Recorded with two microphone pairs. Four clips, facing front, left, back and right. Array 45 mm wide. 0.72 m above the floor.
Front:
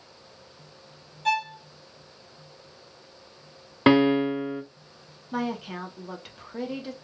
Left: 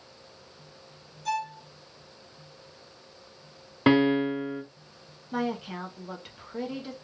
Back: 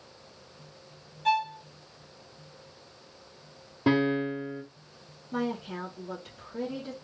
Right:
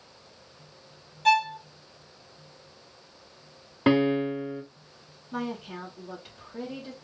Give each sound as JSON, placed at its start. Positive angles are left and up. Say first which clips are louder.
{"t": 1.2, "sound": "a violin", "louder": "right 9 dB, even", "azimuth_deg": -85, "distance_m": 0.5}
{"t": 3.9, "sound": "a piano", "louder": "left 1 dB, front 6 dB", "azimuth_deg": 5, "distance_m": 0.8}
{"t": 5.3, "sound": "a woman speaking", "louder": "left 3 dB, front 2 dB", "azimuth_deg": 30, "distance_m": 1.2}